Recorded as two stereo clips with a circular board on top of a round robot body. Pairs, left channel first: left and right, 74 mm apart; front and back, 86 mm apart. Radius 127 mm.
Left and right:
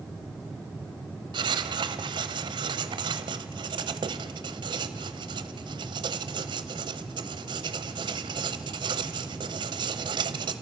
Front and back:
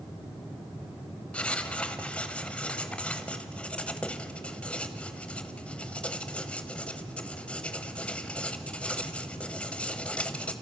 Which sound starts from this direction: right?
Writing, at 1.3 s.